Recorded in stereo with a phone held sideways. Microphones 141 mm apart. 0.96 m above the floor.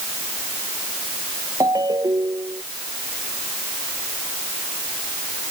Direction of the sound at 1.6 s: 25° right (ahead or behind).